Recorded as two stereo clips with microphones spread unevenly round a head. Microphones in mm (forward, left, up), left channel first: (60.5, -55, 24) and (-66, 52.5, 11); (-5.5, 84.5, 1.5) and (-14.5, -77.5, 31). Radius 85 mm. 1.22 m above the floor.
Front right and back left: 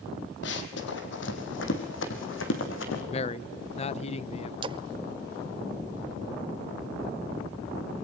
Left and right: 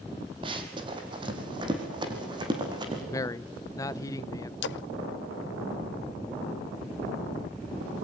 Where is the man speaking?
15° left, 0.7 m.